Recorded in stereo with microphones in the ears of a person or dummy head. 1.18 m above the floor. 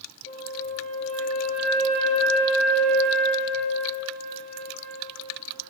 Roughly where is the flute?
Left.